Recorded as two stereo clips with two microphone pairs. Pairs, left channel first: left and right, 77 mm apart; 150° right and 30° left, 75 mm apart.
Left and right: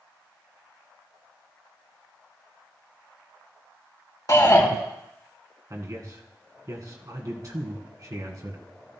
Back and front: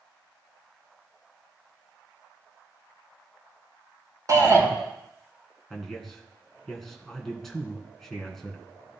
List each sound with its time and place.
4.3 s a shout: 60° left, 3 m
5.7 s a man speaking: 65° right, 2 m